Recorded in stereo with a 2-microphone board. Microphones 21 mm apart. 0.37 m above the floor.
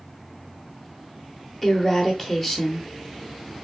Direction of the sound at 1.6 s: 15° left (ahead or behind).